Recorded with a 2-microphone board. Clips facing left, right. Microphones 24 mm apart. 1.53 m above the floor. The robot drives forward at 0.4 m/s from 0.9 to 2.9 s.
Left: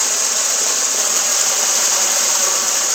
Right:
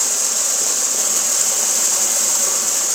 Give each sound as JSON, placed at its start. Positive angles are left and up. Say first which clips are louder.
{"t": 0.0, "sound": "running water", "louder": "left 2 dB", "side_deg": 25, "distance_m": 0.8}